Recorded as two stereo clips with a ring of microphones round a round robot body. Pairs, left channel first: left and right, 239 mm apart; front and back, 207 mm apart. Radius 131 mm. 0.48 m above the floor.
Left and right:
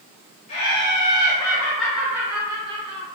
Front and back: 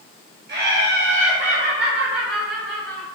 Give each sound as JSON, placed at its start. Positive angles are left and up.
{"t": 0.5, "sound": "laughter", "azimuth_deg": 150, "distance_m": 2.5}